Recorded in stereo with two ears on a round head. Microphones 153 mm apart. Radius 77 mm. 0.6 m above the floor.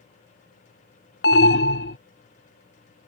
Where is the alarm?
65° left (ahead or behind).